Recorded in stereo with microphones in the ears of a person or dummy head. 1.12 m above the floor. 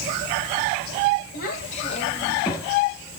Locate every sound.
1.3 s a child speaking: 50° left (ahead or behind), 1.8 m; by 2.7 s 15° left (ahead or behind), 1.5 m